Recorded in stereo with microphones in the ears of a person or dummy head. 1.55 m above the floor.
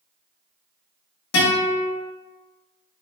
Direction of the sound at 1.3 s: 80° left.